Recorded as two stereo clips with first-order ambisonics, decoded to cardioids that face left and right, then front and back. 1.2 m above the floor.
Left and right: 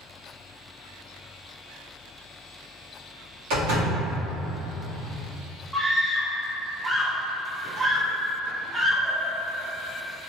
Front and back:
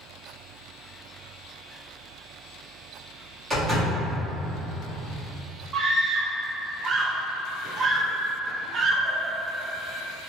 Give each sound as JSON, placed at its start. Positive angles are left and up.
{"t": 3.5, "sound": "a door slam", "azimuth_deg": -105, "distance_m": 1.5}
{"t": 5.7, "sound": "a scream", "azimuth_deg": -160, "distance_m": 0.5}